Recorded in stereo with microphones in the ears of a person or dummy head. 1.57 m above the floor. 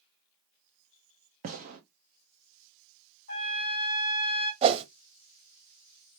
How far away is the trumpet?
About 2 m.